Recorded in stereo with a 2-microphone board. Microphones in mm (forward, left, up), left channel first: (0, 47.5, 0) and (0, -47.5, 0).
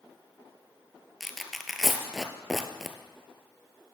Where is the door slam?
I don't hear a door slam.